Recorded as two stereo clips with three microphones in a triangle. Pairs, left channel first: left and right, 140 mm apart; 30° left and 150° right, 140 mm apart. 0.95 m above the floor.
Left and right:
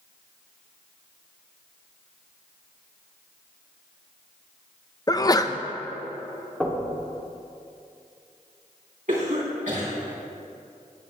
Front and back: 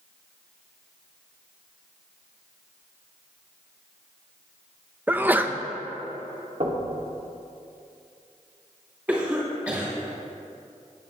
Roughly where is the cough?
Right.